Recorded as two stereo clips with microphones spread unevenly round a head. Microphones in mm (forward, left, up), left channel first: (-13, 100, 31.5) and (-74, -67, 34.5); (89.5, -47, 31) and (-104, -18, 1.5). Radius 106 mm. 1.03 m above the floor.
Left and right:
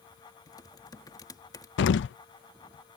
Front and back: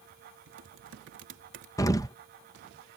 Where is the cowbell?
I don't hear a cowbell.